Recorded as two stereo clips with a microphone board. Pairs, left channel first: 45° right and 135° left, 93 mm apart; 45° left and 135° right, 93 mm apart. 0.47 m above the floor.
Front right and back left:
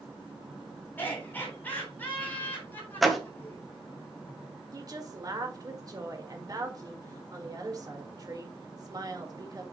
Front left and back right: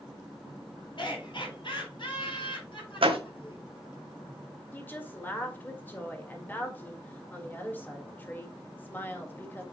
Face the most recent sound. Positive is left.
turn(degrees=105)